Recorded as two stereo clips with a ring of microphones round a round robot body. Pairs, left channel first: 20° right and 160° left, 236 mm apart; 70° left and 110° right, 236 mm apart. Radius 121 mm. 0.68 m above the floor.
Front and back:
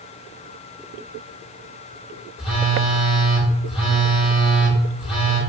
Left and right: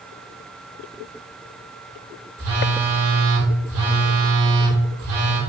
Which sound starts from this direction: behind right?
A phone buzzing, at 2.4 s.